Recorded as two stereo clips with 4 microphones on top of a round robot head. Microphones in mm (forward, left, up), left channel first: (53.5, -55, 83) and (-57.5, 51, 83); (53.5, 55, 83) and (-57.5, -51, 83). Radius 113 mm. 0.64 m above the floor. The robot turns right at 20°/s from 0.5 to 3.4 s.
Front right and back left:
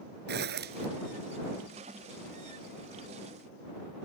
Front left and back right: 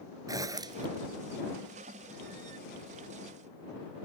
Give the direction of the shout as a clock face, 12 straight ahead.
I don't hear a shout.